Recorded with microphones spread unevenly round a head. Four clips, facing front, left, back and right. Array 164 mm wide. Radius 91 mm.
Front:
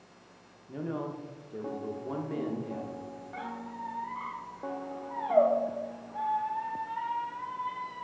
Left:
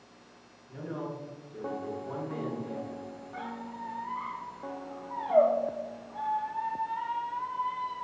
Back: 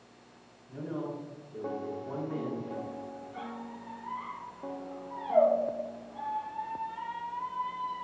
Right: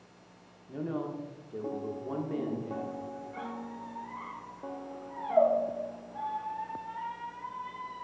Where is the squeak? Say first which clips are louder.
Left 1 dB, front 6 dB; 45° left, 0.6 m.